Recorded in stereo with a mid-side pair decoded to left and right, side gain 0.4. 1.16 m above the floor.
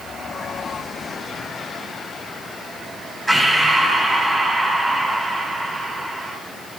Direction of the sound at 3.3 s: 5° right.